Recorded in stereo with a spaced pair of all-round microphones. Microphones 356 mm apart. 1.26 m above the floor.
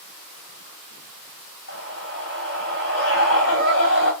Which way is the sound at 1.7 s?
40° left (ahead or behind).